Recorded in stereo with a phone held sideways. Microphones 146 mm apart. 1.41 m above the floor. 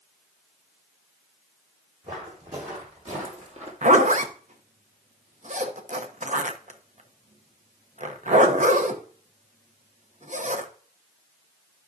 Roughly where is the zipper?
Right.